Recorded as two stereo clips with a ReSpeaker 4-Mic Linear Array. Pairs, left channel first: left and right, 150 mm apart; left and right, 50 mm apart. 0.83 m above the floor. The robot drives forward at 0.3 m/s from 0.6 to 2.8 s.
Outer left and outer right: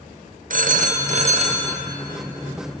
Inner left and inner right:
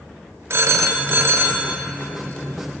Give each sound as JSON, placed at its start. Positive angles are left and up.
{"t": 0.5, "sound": "a phone ringing", "side_deg": -60, "distance_m": 0.5}